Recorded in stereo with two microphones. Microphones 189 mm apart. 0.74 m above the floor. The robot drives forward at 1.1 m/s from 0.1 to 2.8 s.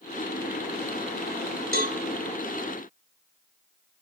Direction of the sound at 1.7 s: 60° right (ahead or behind).